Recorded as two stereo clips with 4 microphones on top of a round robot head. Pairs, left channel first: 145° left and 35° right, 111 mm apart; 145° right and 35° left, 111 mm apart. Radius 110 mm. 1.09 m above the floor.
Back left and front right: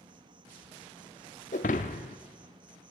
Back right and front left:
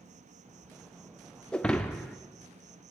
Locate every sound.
0.0 s an insect: 15° left, 1.0 m
1.5 s breaking glass: 135° left, 0.9 m